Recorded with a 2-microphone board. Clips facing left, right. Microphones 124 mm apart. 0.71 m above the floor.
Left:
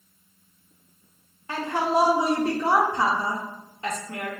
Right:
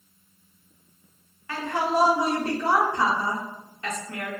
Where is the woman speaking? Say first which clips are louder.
Left 1 dB; 25° left (ahead or behind), 0.6 m.